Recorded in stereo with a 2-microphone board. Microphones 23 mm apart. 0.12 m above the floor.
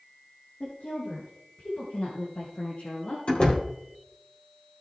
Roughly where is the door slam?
Left.